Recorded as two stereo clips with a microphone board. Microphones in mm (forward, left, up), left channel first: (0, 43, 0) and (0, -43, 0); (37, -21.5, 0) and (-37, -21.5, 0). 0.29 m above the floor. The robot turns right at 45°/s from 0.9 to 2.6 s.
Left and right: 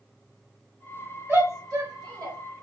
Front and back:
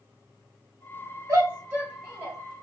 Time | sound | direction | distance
1.3 | a shout | 145° right | 1.7 m